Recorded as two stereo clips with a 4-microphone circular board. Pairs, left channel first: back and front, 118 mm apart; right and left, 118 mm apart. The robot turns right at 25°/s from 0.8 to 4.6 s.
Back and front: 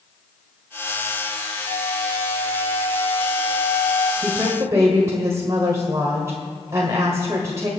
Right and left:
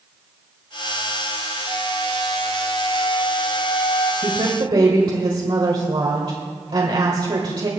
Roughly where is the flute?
Behind.